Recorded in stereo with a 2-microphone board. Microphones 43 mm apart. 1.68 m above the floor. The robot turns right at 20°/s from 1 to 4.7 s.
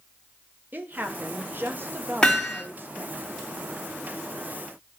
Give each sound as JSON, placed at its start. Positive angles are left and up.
{"t": 0.7, "sound": "a woman speaking", "azimuth_deg": -115, "distance_m": 0.8}
{"t": 2.2, "sound": "hammering", "side_deg": 15, "distance_m": 3.0}